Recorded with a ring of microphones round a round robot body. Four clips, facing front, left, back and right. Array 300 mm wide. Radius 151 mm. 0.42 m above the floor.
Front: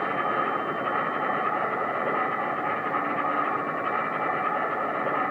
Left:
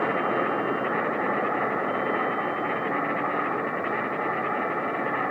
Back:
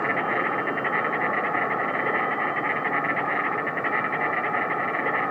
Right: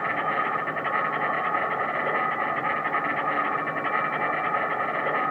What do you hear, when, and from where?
0.0 s an insect: 155° right, 8 m